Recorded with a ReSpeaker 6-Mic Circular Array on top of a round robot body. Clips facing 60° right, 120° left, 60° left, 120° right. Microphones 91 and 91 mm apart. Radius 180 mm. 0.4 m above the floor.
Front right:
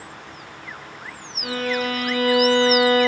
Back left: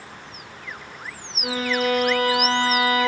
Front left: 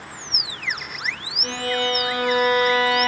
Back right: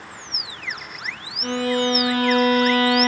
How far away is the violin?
About 3 m.